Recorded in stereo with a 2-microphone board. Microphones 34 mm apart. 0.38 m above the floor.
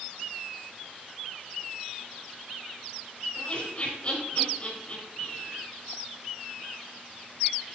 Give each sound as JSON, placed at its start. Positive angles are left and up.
{"t": 3.4, "sound": "laughter", "side_deg": 40, "distance_m": 5.0}